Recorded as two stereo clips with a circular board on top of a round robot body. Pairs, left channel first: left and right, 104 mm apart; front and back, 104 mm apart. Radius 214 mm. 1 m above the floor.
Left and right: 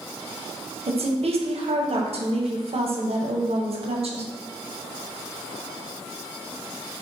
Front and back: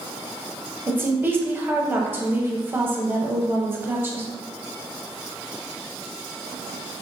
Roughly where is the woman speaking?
Right.